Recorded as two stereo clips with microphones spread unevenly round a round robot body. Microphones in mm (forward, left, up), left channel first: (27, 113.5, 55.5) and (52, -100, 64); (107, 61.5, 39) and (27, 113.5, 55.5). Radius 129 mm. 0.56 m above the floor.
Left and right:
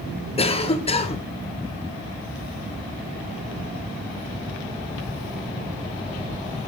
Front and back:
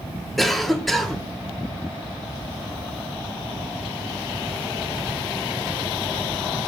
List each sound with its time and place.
0.4 s a cough: 45° left, 1.2 m